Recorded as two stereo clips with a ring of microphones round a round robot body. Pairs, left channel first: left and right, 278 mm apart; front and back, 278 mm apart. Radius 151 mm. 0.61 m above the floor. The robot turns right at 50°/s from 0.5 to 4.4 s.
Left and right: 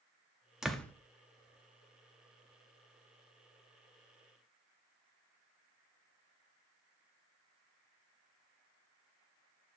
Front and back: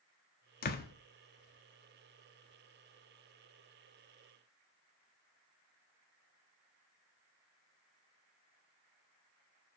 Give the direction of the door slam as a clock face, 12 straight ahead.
12 o'clock.